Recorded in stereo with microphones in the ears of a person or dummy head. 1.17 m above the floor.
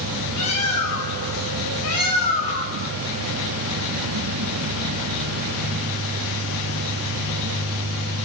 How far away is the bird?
About 3 m.